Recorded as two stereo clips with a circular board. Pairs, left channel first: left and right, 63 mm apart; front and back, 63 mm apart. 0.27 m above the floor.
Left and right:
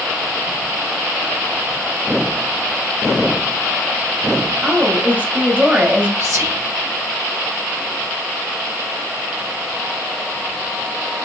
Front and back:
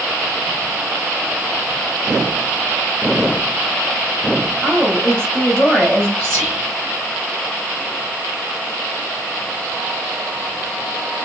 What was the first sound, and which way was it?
A woman speaking, 55° right.